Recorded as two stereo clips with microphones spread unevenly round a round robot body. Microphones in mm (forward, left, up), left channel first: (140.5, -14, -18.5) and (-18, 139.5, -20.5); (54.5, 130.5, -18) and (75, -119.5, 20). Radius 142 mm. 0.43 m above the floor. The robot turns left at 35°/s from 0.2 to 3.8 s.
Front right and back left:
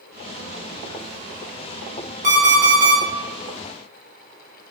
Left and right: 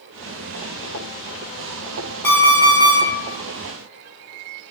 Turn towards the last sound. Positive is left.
turn(degrees=100)